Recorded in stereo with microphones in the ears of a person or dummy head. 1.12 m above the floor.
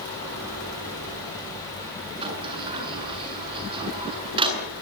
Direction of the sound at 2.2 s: 25° right (ahead or behind).